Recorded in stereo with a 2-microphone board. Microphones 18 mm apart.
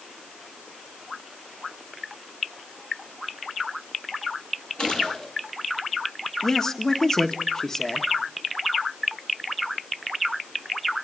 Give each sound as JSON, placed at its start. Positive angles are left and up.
{"t": 4.8, "sound": "a gunshot", "side_deg": 65, "distance_m": 8.0}
{"t": 6.4, "sound": "a man speaking", "side_deg": 35, "distance_m": 1.5}